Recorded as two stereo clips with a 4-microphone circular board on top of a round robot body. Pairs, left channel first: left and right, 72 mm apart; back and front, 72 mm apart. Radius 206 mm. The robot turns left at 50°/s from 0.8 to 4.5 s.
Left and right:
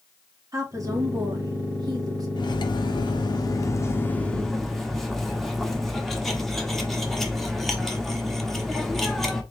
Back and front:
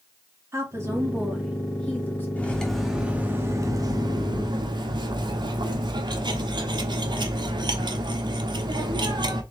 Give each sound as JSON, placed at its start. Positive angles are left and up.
{"t": 0.5, "sound": "a woman speaking", "azimuth_deg": -50, "distance_m": 2.5}
{"t": 2.4, "sound": "cutlery clinking", "azimuth_deg": 110, "distance_m": 0.9}